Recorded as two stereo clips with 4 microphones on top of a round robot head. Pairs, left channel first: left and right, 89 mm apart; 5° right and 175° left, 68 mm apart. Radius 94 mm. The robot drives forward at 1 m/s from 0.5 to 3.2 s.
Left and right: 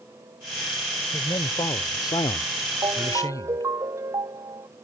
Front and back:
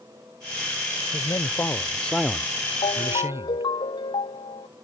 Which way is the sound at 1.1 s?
30° left.